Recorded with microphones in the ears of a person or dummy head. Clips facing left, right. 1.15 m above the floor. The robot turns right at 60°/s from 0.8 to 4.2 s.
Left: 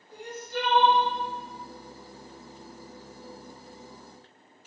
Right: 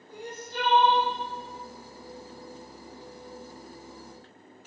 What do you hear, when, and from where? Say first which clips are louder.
0.1 s crying: left 3 dB; 65° right (ahead or behind), 1.7 m; by 1.1 s 50° right (ahead or behind), 1.7 m